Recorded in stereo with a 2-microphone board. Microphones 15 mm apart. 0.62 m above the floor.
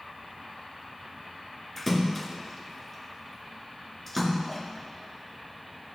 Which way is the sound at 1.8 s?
20° left (ahead or behind).